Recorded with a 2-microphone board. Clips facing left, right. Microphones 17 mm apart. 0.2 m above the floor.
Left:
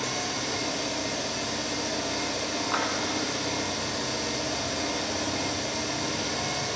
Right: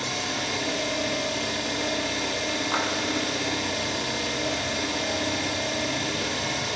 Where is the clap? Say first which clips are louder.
Right 1 dB; centre (ahead or behind), 1.3 m.